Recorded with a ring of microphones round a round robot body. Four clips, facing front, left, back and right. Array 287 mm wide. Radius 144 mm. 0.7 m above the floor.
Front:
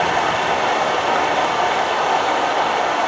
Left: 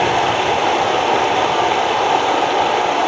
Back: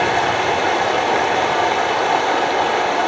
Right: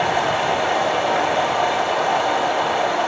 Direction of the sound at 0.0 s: 125° left.